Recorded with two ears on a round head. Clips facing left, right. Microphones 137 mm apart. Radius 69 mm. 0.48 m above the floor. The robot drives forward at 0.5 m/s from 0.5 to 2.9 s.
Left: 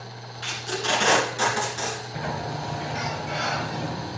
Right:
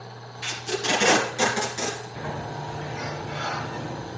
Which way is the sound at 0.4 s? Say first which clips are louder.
Right 1 dB; 15° right (ahead or behind).